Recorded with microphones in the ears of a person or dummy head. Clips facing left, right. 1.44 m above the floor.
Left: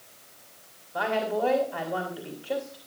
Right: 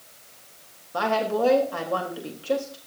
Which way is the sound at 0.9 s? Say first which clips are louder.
Right 3 dB; 65° right (ahead or behind).